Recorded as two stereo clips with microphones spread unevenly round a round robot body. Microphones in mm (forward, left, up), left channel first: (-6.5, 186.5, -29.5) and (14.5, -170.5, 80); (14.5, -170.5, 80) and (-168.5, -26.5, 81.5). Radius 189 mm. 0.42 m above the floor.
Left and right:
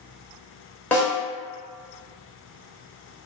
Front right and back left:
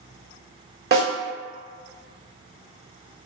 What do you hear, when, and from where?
0.9 s a snare drum: 155° left, 1.7 m